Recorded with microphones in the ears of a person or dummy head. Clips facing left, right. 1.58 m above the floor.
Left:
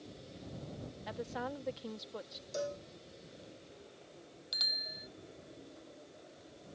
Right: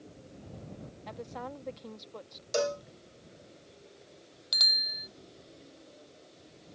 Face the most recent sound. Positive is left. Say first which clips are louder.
# right 1 dB
turn(degrees=-65)  # may be behind; listen again after turning